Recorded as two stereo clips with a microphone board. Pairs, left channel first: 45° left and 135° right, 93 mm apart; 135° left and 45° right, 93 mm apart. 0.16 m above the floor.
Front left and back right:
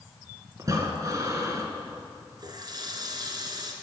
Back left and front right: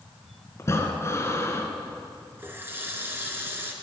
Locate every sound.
0.6 s breathing: 175° right, 1.8 m
2.4 s a running tap: 105° right, 1.7 m